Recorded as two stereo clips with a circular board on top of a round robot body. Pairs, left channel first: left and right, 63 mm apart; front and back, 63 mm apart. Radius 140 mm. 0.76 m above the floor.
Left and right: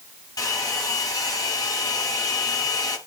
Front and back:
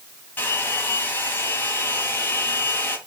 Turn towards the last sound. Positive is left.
turn(degrees=60)